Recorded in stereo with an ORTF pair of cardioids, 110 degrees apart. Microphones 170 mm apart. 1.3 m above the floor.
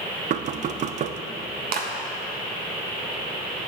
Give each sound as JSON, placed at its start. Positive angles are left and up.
{"t": 0.3, "sound": "knocking", "azimuth_deg": -45, "distance_m": 0.5}
{"t": 1.7, "sound": "a clap", "azimuth_deg": -60, "distance_m": 1.6}